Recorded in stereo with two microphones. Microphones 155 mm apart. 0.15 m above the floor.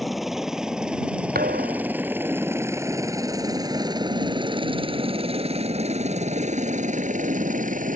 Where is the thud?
80° right.